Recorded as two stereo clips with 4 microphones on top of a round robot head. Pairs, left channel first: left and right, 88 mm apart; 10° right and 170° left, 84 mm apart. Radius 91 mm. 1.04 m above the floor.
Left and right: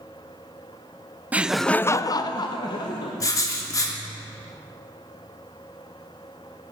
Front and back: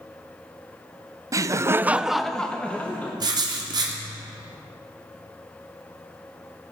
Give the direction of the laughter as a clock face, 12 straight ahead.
5 o'clock.